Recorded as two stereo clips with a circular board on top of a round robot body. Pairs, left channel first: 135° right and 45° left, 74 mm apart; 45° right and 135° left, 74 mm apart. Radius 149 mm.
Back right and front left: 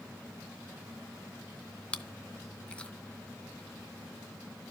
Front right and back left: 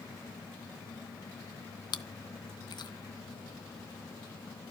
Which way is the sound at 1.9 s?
60° right.